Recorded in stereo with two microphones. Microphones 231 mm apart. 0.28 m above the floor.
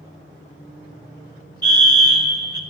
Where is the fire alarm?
50° right (ahead or behind), 3 m.